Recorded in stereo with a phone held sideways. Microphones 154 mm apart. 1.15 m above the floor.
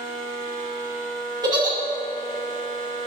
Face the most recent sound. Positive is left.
turn(degrees=-30)  # may be behind; listen again after turning